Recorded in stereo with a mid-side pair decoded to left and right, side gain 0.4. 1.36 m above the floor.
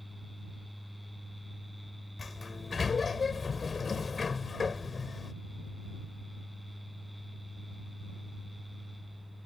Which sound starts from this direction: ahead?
A fan, at 0.0 s.